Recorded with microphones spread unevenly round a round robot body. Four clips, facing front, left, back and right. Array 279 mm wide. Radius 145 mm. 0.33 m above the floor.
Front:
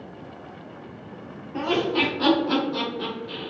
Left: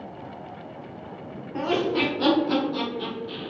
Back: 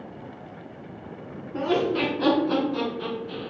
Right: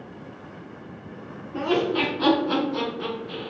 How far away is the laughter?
About 1.5 m.